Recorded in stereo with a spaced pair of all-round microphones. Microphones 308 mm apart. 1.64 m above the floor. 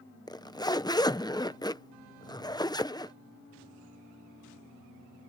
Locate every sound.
0.3 s a zipper: 15° left (ahead or behind)